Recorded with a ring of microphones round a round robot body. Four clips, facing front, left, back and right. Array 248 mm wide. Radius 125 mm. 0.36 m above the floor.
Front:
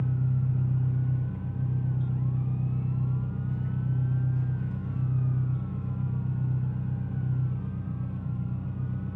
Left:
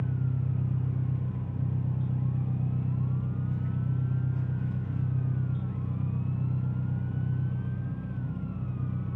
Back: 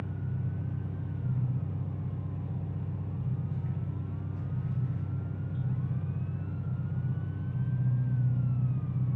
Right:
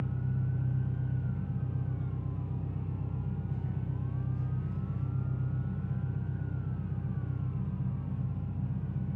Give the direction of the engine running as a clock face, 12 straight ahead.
10 o'clock.